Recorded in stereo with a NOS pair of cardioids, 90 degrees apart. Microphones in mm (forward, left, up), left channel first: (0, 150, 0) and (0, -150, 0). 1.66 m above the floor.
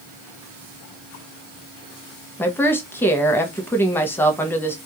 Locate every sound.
2.4 s a woman speaking: 5° left, 0.7 m